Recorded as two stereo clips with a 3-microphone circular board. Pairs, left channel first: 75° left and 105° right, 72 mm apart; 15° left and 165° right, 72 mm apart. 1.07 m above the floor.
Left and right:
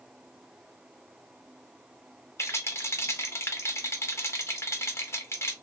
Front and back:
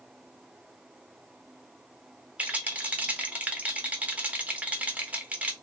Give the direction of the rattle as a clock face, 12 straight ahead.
8 o'clock.